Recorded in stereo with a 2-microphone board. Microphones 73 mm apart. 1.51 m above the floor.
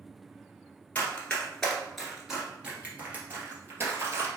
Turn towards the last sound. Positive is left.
turn(degrees=-40)  # may be behind; listen again after turning